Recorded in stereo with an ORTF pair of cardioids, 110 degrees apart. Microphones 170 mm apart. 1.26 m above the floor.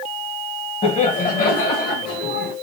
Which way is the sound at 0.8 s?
35° left.